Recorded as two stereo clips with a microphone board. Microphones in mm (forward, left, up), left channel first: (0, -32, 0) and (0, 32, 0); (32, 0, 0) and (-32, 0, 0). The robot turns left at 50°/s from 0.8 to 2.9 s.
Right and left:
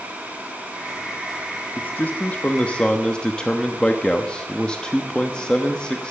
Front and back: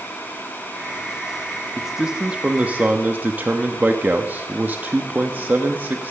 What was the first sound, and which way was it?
A man speaking, 95° right.